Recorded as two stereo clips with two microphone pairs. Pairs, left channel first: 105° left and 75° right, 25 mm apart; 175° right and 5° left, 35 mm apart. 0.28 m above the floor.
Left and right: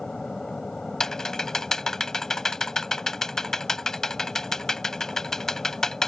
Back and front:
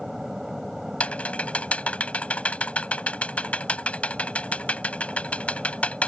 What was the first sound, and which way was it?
An aircraft, 85° left.